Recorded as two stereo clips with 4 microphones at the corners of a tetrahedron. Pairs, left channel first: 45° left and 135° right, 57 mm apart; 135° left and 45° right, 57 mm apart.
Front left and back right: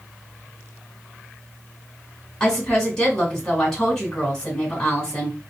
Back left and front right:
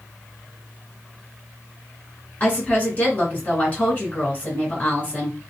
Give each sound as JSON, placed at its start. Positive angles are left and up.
{"t": 2.4, "sound": "a woman speaking", "azimuth_deg": 110, "distance_m": 1.3}